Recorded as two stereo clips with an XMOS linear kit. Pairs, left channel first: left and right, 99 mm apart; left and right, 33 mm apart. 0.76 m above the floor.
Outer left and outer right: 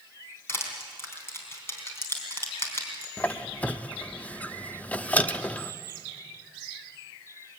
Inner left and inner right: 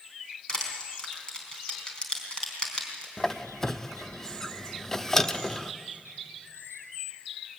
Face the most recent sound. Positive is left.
turn(degrees=15)  # may be behind; listen again after turning